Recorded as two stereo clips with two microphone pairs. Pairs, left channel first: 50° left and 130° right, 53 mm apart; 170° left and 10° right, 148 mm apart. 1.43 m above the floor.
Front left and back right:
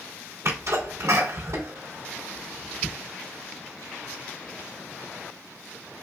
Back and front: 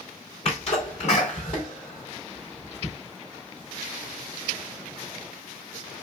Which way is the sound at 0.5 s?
150° right.